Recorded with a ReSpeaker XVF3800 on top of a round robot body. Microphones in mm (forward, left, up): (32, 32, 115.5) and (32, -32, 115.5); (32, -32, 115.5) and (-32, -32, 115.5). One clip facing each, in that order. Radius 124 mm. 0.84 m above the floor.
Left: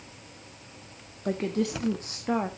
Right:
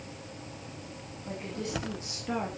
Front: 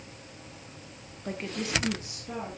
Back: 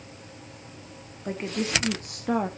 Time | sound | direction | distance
1.2 | a woman speaking | 100° left | 1.7 m